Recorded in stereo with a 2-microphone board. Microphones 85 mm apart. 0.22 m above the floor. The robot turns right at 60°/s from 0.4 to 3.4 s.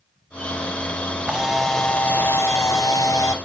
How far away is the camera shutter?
About 0.9 m.